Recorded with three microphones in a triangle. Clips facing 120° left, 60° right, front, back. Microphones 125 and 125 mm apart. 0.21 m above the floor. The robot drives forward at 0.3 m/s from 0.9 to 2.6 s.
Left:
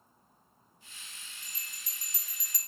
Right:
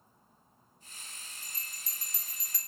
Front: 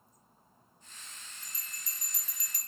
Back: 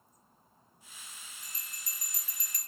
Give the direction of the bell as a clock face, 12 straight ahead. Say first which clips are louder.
Right 1 dB, even; 6 o'clock.